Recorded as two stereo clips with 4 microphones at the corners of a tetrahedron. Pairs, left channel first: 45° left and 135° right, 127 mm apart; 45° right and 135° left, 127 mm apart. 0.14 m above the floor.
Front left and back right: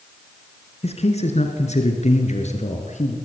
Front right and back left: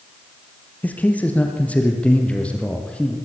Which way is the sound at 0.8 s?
30° left.